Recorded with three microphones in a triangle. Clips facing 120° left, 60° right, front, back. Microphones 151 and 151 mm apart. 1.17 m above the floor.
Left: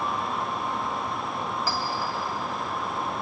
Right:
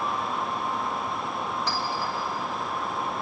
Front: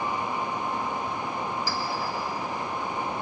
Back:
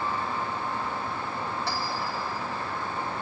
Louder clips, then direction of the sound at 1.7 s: Even, front 1 dB; 155° right.